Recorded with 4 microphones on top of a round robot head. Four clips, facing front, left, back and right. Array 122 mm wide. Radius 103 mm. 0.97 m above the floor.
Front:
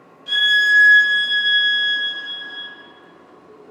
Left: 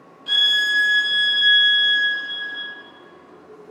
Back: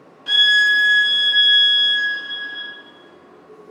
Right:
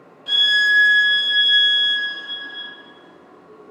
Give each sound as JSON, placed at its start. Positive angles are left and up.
{"t": 0.3, "sound": "a violin", "azimuth_deg": 175, "distance_m": 0.9}